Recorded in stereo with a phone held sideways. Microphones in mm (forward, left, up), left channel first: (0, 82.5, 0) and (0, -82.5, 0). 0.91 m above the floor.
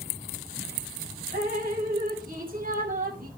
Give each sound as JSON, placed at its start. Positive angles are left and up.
{"t": 1.3, "sound": "dripping", "side_deg": -60, "distance_m": 2.0}